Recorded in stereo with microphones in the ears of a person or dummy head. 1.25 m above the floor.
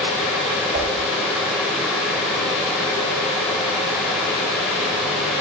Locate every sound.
0.7 s a whoosh: 45° right (ahead or behind), 3 m